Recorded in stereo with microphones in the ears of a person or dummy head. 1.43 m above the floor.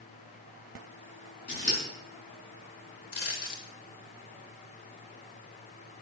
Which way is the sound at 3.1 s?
65° left (ahead or behind).